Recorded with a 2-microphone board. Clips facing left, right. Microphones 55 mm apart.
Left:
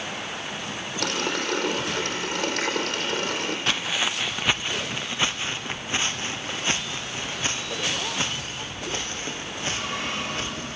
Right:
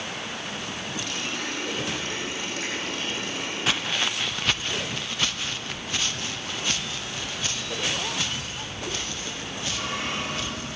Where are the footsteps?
5° right (ahead or behind), 0.7 m; by 10.8 s 35° left (ahead or behind), 6 m.